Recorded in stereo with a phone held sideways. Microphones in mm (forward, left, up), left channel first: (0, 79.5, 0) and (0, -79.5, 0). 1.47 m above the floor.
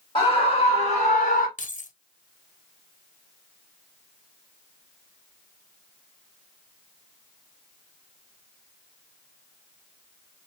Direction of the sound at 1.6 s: 55° left (ahead or behind).